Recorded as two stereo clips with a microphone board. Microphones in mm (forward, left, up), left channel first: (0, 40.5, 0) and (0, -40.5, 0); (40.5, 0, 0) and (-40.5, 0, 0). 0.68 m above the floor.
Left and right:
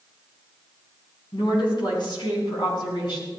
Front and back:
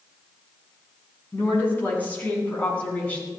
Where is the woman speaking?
65° left, 7.5 m; by 3.3 s 75° left, 8 m.